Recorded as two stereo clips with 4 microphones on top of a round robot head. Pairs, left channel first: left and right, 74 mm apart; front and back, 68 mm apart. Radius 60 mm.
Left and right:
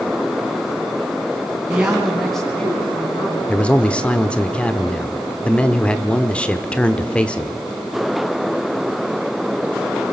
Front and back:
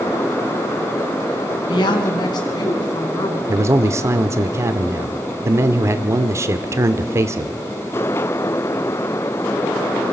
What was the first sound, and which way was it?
A woman speaking, 10° right.